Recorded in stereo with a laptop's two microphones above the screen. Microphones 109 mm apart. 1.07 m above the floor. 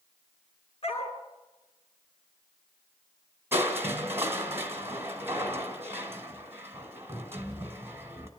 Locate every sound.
0.8 s a dog barking: 55° left (ahead or behind), 4.5 m
3.5 s crushing: 20° right (ahead or behind), 1.9 m